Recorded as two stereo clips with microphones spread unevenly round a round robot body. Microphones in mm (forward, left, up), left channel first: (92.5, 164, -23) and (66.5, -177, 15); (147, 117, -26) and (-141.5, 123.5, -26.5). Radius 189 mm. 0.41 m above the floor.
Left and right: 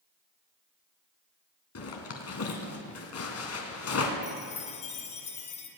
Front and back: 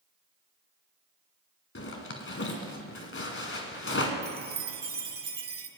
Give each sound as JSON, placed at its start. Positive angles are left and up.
{"t": 1.8, "sound": "a zipper", "azimuth_deg": 40, "distance_m": 2.0}
{"t": 4.2, "sound": "a chime", "azimuth_deg": 140, "distance_m": 1.2}